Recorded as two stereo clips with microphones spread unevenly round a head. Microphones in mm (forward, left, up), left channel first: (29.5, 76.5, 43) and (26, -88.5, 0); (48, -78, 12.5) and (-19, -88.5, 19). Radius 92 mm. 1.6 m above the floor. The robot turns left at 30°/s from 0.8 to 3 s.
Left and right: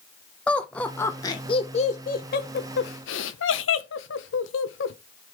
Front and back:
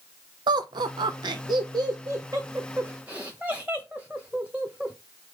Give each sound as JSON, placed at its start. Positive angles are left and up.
{"t": 0.5, "sound": "laughter", "azimuth_deg": 175, "distance_m": 0.7}